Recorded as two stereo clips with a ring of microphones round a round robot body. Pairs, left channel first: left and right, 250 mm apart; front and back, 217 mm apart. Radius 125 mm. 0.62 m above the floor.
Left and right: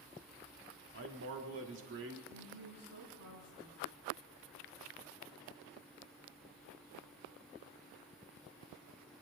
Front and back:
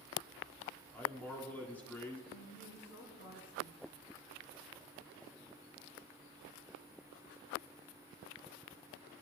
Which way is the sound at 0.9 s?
80° right.